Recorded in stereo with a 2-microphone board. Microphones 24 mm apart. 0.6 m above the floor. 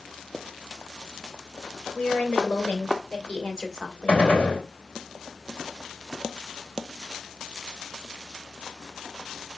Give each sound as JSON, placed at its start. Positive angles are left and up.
{"t": 1.9, "sound": "a woman speaking", "side_deg": 60, "distance_m": 3.0}
{"t": 4.1, "sound": "a gunshot", "side_deg": 55, "distance_m": 3.0}